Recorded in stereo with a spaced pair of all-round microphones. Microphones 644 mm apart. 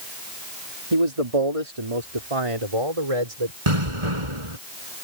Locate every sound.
0.9 s a man speaking: 60° right (ahead or behind)
3.7 s an explosion: 55° right (ahead or behind)